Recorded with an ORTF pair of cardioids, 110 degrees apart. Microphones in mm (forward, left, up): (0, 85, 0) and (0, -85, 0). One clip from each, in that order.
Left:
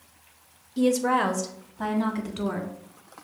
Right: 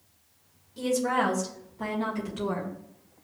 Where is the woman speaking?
35° left, 0.7 m; by 2.7 s 40° left, 1.9 m.